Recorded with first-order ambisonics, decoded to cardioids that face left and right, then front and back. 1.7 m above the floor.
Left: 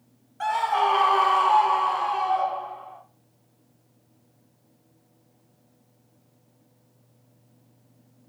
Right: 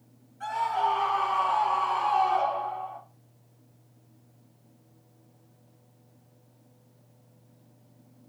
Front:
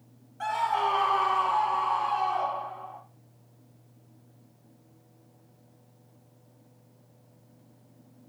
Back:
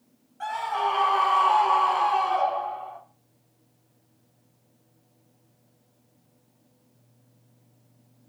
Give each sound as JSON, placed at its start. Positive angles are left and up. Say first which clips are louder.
{"t": 0.4, "sound": "a scream", "louder": "left 4 dB, even", "azimuth_deg": 80, "distance_m": 1.1}